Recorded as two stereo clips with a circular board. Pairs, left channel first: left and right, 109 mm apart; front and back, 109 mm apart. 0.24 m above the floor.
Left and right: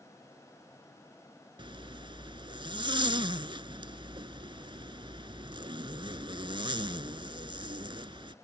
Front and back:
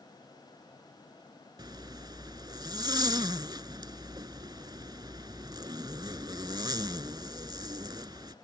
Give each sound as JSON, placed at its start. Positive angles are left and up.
{"t": 1.6, "sound": "a zipper", "azimuth_deg": -130}